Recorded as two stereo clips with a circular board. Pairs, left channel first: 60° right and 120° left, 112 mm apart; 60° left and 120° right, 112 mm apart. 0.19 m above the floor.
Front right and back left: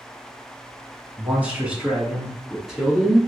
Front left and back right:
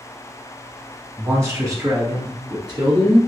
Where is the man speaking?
175° right, 1.7 m; by 3.2 s 150° right, 2.5 m.